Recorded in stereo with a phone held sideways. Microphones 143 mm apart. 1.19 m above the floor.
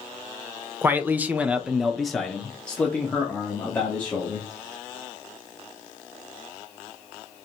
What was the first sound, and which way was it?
A man speaking, 15° right (ahead or behind).